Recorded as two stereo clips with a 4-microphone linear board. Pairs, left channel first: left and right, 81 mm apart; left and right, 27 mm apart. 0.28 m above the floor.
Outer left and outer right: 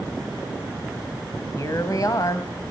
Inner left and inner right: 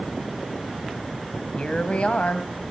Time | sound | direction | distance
1.6 | a woman speaking | 45° left (ahead or behind) | 1.6 m